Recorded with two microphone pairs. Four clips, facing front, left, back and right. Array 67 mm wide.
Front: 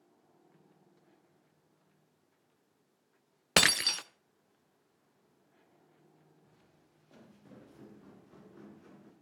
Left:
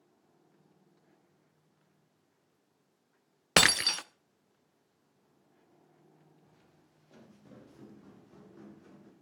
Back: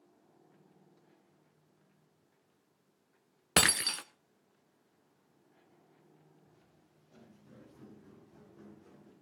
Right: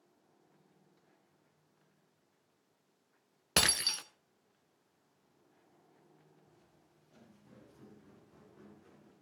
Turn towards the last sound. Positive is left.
turn(degrees=35)